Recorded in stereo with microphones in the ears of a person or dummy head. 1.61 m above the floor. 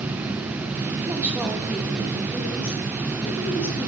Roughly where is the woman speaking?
Centre.